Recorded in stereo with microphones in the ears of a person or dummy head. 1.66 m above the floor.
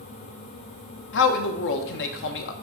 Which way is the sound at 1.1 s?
65° left (ahead or behind).